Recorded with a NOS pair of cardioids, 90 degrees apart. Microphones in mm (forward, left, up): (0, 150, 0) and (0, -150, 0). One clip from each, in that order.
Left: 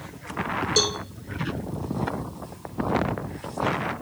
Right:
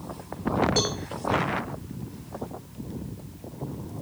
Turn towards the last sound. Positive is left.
turn(degrees=35)